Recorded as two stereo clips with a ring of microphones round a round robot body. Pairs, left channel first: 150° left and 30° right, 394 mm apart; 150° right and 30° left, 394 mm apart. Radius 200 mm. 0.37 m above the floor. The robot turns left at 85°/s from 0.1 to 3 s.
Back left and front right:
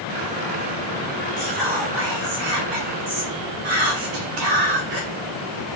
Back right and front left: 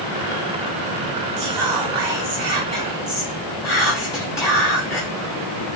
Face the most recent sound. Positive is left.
turn(degrees=-70)